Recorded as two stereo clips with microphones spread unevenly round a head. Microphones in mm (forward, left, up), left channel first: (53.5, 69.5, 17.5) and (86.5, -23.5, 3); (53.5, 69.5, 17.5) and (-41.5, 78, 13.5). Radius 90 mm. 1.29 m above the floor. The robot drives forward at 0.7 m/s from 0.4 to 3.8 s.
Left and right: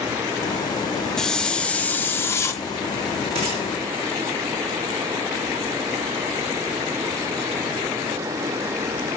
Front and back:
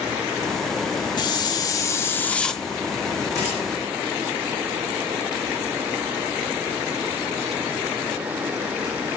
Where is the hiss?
30° left, 1.5 m; by 2.6 s 80° left, 1.0 m.